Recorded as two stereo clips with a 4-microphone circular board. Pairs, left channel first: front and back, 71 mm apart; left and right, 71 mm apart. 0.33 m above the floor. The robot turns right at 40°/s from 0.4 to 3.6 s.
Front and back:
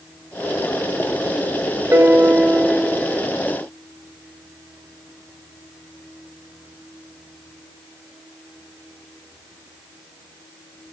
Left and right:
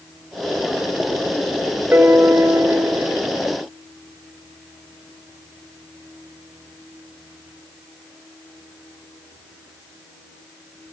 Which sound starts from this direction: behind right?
A piano, at 1.9 s.